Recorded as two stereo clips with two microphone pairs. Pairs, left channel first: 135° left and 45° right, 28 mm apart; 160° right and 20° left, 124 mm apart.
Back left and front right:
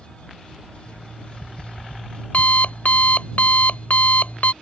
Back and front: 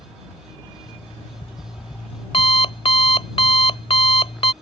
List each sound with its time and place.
0.9 s an alarm clock: 160° left